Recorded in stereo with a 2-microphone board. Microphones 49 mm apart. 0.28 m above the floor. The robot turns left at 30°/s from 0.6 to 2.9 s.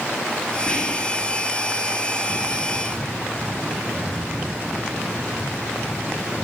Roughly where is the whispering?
Left.